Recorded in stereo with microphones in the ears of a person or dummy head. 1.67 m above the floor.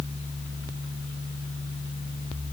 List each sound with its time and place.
Only background noise.